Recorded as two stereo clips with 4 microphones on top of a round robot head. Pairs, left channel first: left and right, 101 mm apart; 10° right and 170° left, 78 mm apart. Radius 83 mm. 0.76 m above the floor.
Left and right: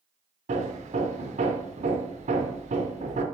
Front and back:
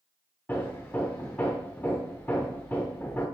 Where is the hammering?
85° right, 1.0 m.